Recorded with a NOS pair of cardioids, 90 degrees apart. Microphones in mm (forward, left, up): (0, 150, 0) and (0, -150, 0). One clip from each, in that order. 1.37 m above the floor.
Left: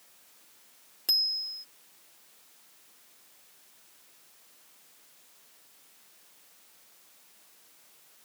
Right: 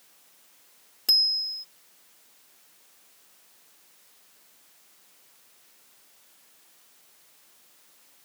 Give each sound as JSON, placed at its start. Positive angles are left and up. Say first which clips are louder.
{"t": 1.1, "sound": "a bicycle bell", "louder": "right 5 dB", "azimuth_deg": -15}